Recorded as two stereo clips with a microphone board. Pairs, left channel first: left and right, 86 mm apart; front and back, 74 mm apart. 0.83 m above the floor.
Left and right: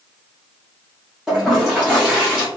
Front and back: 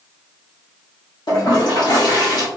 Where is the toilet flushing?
10° right, 1.3 m.